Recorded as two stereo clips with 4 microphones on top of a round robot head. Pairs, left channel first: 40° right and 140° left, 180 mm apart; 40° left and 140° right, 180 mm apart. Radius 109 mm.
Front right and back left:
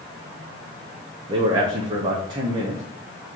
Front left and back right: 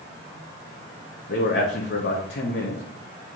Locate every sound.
1.3 s a man speaking: 75° left, 0.7 m